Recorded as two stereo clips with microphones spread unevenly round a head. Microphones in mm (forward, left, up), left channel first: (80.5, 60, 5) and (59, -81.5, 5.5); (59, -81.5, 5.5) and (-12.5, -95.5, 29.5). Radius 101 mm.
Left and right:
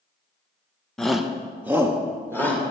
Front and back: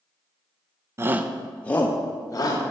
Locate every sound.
1.0 s a shout: 160° left, 0.5 m; by 2.6 s 25° right, 1.3 m